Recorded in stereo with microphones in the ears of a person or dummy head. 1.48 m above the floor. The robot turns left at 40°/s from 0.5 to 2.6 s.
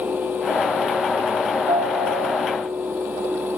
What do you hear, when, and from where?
1.7 s a piano: 15° right, 0.5 m; by 2.6 s 50° right, 0.5 m